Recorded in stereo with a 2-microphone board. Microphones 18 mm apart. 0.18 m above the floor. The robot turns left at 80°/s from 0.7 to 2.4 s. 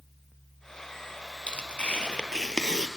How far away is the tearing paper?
About 1.2 m.